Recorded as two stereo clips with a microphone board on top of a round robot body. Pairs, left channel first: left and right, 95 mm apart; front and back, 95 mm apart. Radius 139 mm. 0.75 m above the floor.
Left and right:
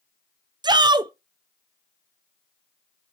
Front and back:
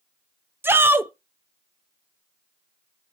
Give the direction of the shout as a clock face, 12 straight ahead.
4 o'clock.